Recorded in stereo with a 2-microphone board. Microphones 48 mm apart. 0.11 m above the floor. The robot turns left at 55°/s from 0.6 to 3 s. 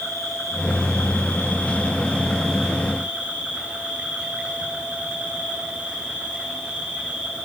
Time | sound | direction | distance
0.0 | an insect | 105° left | 9.5 m